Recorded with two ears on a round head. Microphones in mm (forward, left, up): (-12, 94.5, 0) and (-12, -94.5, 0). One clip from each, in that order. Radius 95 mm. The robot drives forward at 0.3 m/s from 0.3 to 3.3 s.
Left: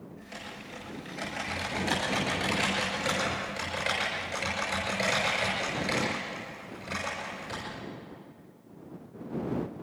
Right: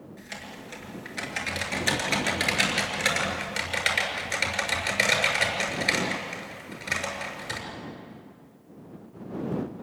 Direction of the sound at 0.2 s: 75° right (ahead or behind).